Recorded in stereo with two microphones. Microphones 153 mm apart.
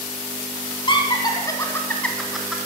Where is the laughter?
30° left (ahead or behind), 1.4 m; by 2.6 s 5° right (ahead or behind), 1.2 m.